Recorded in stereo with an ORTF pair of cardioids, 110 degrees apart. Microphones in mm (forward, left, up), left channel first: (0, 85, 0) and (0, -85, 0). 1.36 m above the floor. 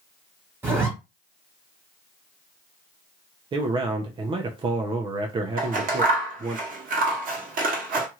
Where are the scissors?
55° right, 1.1 m.